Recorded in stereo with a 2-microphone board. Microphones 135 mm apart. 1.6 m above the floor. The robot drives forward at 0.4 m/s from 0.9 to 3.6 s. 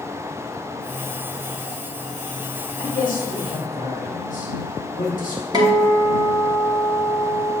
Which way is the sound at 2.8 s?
85° left.